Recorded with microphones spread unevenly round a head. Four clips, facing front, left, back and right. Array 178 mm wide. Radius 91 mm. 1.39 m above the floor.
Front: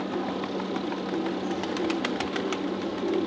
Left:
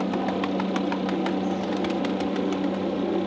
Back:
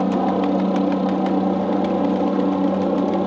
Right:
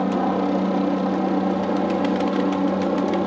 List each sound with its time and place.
0.0 s a helicopter: 160° right